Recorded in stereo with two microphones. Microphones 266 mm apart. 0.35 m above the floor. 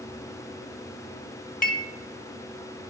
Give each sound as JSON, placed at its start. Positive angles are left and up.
{"t": 1.6, "sound": "dishes clattering", "side_deg": 30, "distance_m": 0.8}